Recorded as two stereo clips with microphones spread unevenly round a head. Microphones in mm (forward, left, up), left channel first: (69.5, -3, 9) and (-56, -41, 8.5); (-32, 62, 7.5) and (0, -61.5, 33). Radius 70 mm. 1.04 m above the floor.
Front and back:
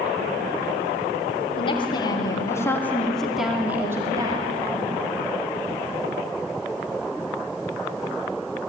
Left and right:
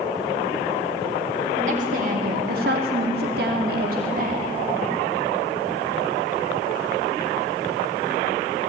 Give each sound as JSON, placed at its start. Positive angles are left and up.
{"t": 1.6, "sound": "a woman speaking", "azimuth_deg": -35, "distance_m": 3.5}